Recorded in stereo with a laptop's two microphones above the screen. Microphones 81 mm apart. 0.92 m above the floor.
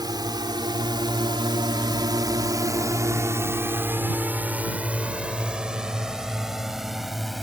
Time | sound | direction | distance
0.0 | a drone | 60° right (ahead or behind) | ?